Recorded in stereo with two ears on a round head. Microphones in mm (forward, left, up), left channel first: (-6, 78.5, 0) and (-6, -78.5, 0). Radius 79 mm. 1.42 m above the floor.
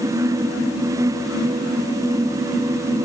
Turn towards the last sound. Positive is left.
No sound to turn to.